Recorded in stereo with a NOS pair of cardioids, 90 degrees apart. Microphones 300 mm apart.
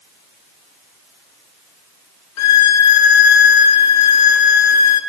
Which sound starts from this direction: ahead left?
A violin, at 2.4 s.